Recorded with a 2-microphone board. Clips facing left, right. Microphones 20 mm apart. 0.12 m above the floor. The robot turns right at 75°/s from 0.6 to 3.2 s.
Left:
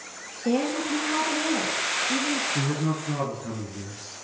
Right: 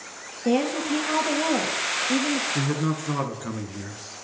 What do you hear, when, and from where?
0.5 s a woman speaking: 160° right, 3.5 m; by 2.5 s 25° right, 3.5 m
2.5 s a man speaking: 165° right, 1.7 m; by 4.0 s 115° right, 1.7 m